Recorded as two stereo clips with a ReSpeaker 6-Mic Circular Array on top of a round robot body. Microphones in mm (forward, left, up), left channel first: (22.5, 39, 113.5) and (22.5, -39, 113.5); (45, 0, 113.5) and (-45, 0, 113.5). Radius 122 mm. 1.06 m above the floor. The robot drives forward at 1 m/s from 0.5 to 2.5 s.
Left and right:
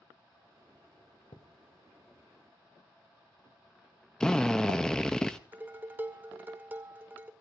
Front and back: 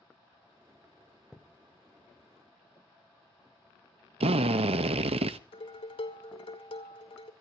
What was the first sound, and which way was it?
A thud, 95° left.